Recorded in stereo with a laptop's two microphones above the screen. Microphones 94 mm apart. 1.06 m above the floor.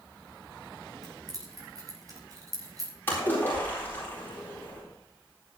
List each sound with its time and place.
1.0 s keys jangling: 40° right (ahead or behind), 5 m
3.1 s a splash: 20° left (ahead or behind), 4 m